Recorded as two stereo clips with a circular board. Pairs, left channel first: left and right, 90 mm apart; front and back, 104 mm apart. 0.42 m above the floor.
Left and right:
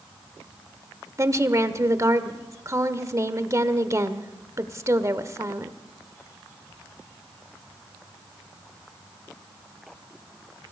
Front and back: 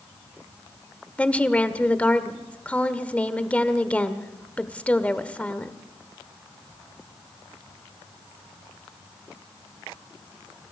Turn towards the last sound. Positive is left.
turn(degrees=-70)